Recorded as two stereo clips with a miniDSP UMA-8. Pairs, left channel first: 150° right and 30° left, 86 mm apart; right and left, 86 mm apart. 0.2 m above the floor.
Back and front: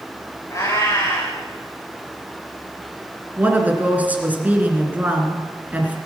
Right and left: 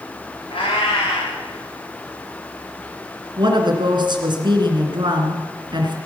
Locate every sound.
0.5 s a cat meowing: 95° right, 7 m
3.4 s a woman speaking: 100° left, 2.5 m